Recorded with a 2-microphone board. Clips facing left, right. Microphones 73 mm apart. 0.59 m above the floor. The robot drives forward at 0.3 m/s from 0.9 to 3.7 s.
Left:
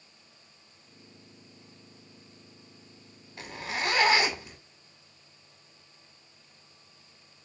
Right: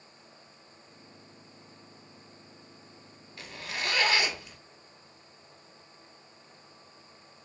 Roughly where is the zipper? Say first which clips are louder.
Left 4 dB; left.